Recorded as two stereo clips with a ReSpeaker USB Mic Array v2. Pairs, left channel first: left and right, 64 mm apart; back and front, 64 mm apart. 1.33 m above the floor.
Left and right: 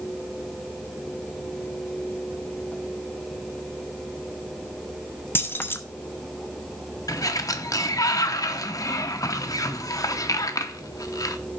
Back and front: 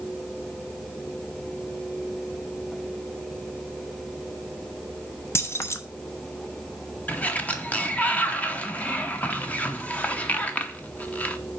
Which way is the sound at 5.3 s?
140° left.